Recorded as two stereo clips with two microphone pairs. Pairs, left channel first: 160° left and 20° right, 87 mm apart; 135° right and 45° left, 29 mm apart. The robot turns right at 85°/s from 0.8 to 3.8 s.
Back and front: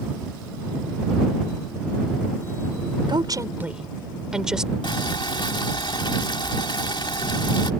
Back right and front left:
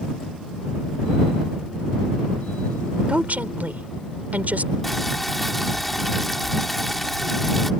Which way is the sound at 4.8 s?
135° left.